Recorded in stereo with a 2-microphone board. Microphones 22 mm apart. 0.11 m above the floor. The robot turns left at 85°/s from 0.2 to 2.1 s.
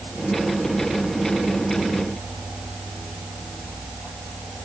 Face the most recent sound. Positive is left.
No sound to turn to.